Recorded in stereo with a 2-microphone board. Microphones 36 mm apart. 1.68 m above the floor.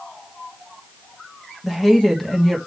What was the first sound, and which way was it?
A woman speaking, 10° left (ahead or behind).